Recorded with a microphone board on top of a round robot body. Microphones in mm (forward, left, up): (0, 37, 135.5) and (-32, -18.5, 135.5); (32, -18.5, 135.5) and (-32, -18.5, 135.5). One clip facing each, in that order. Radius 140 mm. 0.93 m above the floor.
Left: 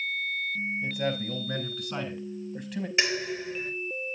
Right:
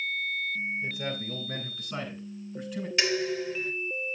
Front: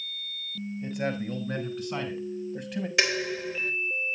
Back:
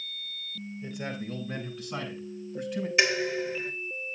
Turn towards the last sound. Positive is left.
turn(degrees=-10)